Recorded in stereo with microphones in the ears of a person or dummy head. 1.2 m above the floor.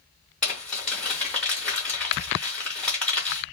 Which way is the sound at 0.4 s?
5° left (ahead or behind).